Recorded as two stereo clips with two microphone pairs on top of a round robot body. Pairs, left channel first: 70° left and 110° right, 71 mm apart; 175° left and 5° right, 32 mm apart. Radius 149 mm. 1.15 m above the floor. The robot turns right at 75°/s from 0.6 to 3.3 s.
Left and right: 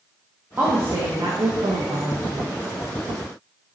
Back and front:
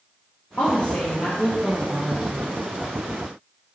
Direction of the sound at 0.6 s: Straight behind.